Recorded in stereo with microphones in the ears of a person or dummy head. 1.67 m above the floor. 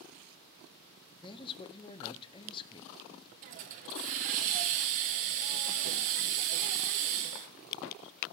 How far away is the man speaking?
About 0.8 m.